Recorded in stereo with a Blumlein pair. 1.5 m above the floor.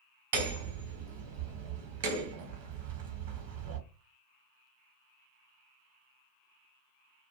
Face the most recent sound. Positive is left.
turn(degrees=-55)